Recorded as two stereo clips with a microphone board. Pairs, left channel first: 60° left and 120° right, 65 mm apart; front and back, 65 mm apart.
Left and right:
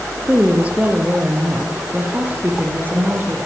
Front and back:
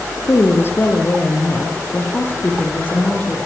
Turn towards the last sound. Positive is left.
turn(degrees=-65)